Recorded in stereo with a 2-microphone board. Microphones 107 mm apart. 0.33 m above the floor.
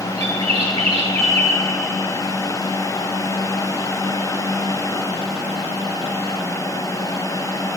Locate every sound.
0.2 s a bird: 80° right, 1.1 m